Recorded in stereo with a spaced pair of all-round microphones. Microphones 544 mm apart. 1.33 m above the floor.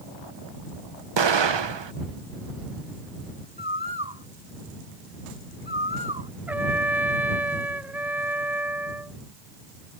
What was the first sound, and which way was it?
An explosion, 55° right (ahead or behind).